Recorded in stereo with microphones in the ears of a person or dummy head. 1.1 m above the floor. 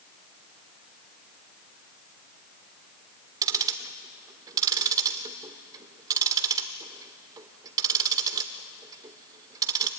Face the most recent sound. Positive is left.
turn(degrees=-20)  # may be behind; listen again after turning